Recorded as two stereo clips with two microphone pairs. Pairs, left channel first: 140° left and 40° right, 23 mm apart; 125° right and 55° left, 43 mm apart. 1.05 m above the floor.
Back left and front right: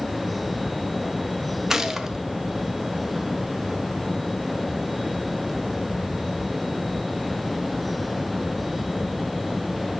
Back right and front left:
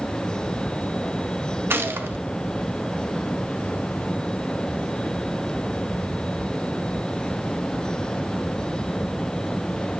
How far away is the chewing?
I don't hear chewing.